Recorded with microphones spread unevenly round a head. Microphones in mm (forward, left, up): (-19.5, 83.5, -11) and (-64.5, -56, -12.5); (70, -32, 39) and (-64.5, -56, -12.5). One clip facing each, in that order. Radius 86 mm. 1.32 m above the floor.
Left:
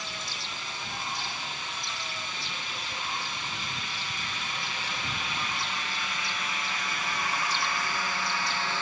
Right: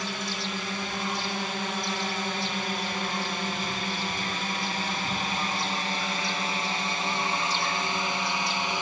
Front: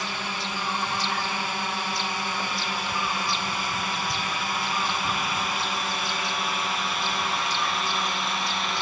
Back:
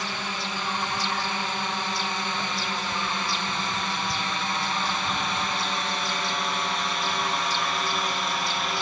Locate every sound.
0.0 s a drone: 80° right; by 8.8 s 150° right